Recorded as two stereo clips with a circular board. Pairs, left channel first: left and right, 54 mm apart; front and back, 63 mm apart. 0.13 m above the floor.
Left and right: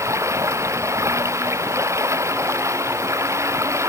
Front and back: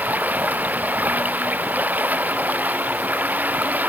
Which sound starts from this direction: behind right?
Running water, at 0.0 s.